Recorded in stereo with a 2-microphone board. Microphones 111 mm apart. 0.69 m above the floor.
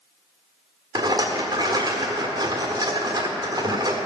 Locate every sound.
0.9 s a rattle: 35° right (ahead or behind), 1.4 m